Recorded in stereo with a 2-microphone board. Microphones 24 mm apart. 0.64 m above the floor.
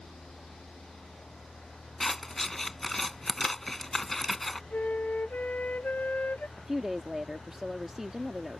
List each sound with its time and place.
2.0 s scissors: 10° left (ahead or behind)
4.7 s a flute: 75° left (ahead or behind)
6.6 s a woman speaking: 15° right (ahead or behind)